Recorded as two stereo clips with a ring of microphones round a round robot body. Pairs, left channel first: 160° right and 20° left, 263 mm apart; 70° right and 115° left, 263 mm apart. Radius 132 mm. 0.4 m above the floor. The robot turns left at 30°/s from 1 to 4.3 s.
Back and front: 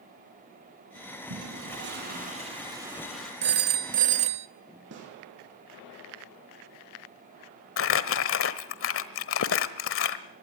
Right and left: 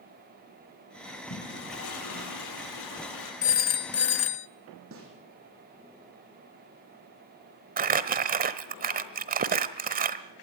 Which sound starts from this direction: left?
A snare drum, at 4.9 s.